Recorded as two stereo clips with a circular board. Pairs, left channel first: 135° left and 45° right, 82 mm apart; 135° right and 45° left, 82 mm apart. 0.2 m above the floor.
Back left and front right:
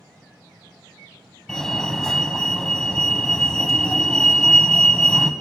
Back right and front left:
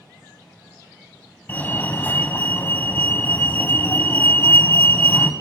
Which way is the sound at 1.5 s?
150° right.